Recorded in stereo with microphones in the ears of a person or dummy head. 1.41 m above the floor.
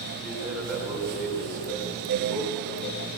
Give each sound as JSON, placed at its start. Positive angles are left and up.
{"t": 0.2, "sound": "a man speaking", "side_deg": -5, "distance_m": 7.0}